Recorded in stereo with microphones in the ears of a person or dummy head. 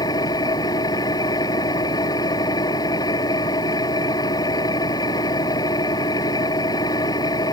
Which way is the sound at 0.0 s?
20° left (ahead or behind).